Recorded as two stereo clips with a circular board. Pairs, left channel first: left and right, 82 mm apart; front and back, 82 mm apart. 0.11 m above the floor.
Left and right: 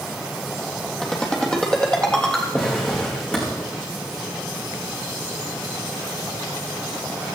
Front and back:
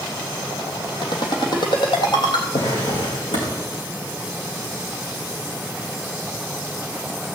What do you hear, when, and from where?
1.0 s a ringtone: 10° left, 3 m
2.5 s a drawer: 15° left, 4.5 m